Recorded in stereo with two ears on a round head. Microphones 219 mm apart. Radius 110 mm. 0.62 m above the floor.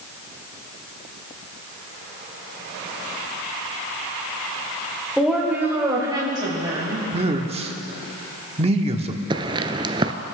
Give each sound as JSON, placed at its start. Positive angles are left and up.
{"t": 5.2, "sound": "a woman speaking", "side_deg": 0, "distance_m": 2.5}
{"t": 7.1, "sound": "a man speaking", "side_deg": -25, "distance_m": 1.1}
{"t": 9.3, "sound": "footsteps", "side_deg": -20, "distance_m": 0.7}